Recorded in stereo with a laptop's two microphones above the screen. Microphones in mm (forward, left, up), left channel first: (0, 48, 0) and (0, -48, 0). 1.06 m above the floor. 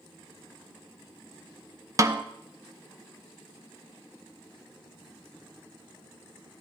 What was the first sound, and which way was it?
A snare drum, 35° right (ahead or behind).